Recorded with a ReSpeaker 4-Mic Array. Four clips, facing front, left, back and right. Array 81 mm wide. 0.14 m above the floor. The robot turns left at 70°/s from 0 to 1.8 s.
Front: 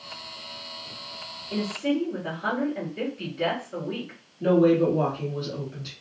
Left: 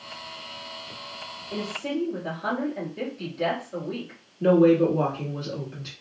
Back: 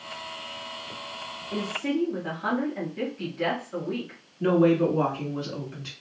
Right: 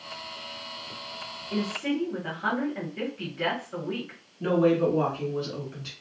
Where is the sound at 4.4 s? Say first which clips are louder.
Left 5 dB, front 1 dB; 165° right, 1.1 m.